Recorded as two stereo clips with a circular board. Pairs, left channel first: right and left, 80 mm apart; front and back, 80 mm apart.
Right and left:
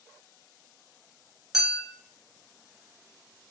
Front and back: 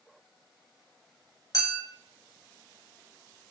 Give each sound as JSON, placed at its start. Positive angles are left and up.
{"t": 1.5, "sound": "a clink", "azimuth_deg": 5, "distance_m": 1.3}